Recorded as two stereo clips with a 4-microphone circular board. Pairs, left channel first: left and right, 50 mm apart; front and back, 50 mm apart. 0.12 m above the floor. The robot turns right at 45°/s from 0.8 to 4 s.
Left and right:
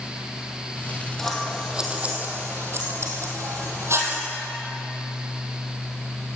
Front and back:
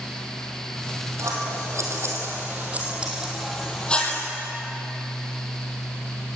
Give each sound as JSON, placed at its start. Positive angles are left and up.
{"t": 1.2, "sound": "scissors", "azimuth_deg": 170, "distance_m": 3.5}